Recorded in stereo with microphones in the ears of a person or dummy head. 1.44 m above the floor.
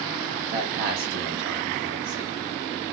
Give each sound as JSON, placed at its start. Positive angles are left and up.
{"t": 0.5, "sound": "a man speaking", "side_deg": -60, "distance_m": 0.7}